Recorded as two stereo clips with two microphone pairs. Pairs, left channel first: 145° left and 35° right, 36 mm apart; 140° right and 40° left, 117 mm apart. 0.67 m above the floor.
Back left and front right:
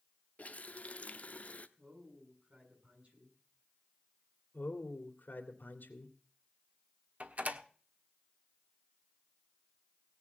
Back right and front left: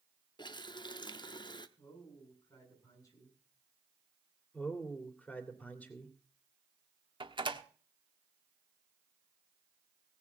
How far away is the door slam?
About 1.2 m.